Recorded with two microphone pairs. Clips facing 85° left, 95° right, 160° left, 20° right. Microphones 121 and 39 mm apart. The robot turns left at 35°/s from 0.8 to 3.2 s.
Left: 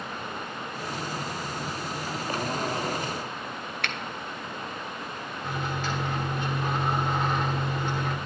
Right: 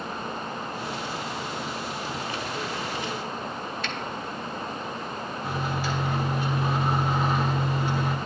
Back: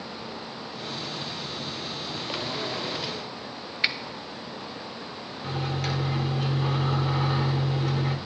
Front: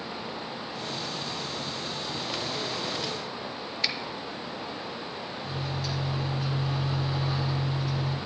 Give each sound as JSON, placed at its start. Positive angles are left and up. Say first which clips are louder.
{"t": 3.8, "sound": "a finger snap", "louder": "right 1 dB, back 5 dB", "azimuth_deg": 100, "distance_m": 0.8}
{"t": 5.4, "sound": "a microwave", "louder": "right 1 dB, back 6 dB", "azimuth_deg": -175, "distance_m": 1.5}